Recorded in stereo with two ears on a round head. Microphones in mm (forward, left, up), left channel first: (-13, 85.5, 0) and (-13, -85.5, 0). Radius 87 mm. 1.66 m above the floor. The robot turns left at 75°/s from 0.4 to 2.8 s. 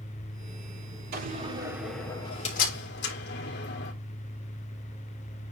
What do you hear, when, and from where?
1.1 s a door slam: 55° right (ahead or behind), 3 m; by 3.9 s 60° left (ahead or behind), 3 m